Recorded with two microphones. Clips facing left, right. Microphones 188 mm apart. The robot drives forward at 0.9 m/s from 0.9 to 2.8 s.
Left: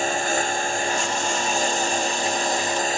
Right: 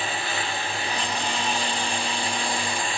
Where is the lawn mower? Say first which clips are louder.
Left 6 dB; 45° left (ahead or behind).